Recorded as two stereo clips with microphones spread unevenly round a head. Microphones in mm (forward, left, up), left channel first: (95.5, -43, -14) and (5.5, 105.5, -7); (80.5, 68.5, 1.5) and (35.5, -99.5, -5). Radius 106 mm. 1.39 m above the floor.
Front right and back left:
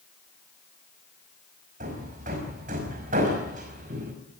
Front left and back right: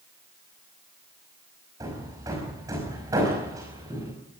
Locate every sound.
1.8 s hammering: straight behind, 5 m